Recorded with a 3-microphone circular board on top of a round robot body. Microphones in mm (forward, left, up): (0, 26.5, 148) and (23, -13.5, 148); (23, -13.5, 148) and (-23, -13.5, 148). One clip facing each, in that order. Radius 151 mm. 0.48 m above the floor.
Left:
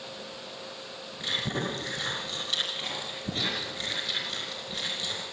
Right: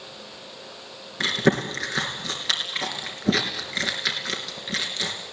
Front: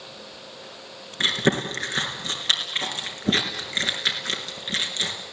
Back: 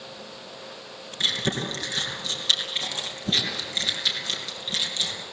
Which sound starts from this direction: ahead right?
Chewing, at 1.2 s.